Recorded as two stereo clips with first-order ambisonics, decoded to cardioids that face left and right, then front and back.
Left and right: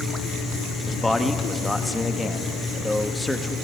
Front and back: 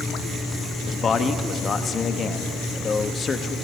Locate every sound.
0.9 s a man speaking: 15° left, 0.7 m